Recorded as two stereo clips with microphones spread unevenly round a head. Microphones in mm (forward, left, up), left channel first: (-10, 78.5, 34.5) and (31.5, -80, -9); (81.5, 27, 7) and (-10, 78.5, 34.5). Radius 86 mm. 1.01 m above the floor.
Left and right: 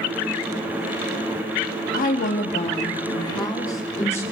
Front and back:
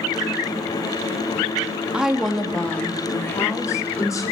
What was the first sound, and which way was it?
A woman speaking, 65° left.